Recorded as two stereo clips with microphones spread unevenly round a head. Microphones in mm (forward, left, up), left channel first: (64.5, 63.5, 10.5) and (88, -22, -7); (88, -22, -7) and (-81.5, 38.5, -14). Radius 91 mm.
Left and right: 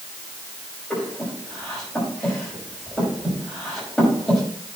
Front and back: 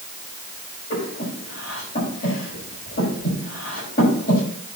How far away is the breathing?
About 5.5 m.